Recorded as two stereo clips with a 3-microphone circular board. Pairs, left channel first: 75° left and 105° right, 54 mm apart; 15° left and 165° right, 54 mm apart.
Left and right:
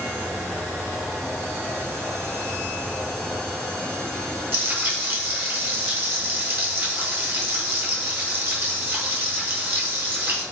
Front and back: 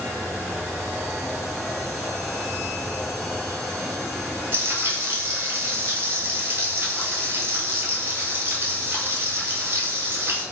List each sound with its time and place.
4.5 s frying: 135° right, 1.6 m